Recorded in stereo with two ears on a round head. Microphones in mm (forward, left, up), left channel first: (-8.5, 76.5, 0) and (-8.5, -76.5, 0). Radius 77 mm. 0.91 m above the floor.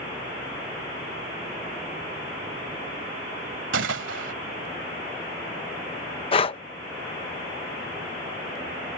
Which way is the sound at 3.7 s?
80° right.